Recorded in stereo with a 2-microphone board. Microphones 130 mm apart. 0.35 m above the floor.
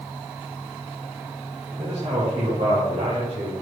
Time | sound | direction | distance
1.8 | a man speaking | 45° right (ahead or behind) | 2.5 m